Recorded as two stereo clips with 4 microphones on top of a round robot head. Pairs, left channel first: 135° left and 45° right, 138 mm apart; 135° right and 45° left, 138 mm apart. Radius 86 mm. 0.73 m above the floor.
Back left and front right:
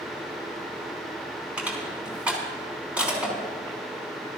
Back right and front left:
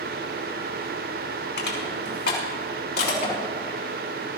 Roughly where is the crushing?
Behind right.